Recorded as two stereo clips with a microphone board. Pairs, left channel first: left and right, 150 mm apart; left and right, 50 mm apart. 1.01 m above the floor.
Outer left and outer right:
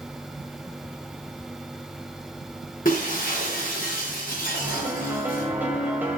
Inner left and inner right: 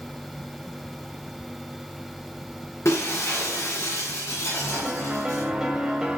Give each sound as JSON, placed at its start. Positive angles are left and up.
{"t": 2.9, "sound": "breaking glass", "side_deg": 65, "distance_m": 8.0}
{"t": 4.6, "sound": "a piano", "side_deg": -10, "distance_m": 2.5}